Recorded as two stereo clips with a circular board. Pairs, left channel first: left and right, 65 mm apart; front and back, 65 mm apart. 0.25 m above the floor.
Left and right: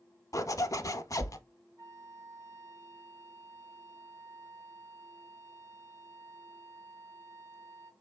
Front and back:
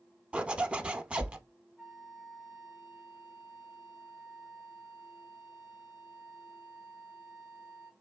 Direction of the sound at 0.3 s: 110° left.